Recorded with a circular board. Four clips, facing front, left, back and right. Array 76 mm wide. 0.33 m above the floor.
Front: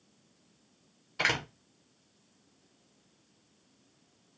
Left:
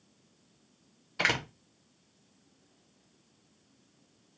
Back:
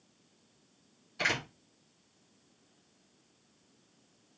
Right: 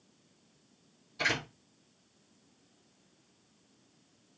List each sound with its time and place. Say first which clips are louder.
1.2 s a door slam: left 3 dB, front 2 dB; 60° left, 1.2 m